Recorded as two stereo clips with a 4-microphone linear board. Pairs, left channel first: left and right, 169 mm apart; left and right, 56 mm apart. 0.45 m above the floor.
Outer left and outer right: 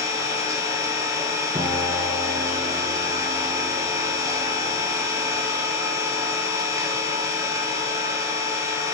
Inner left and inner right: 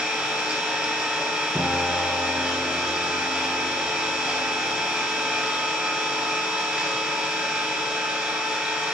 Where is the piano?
20° right (ahead or behind), 1.7 m.